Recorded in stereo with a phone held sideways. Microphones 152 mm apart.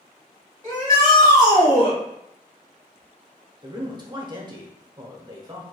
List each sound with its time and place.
0.6 s a shout: 25° left (ahead or behind), 2.0 m
3.6 s a man speaking: 30° right (ahead or behind), 0.8 m